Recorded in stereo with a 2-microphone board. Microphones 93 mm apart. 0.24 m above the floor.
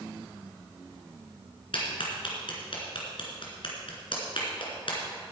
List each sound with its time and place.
1.7 s a clap: 65° left (ahead or behind), 3 m